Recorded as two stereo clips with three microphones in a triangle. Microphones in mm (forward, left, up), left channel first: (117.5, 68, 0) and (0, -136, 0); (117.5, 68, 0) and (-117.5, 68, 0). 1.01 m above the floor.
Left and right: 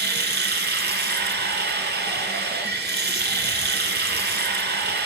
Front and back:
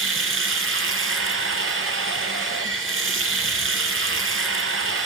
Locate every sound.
0.0 s running water: 160° right, 2 m